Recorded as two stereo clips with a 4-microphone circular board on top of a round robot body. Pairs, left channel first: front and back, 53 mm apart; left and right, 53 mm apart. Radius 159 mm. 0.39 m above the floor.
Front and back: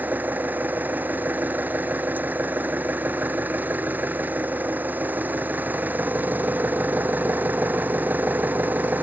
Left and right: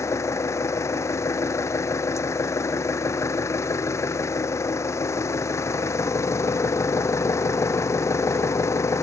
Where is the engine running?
120° left.